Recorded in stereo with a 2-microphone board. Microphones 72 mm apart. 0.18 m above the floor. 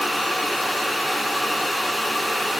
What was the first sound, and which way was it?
Only background noise.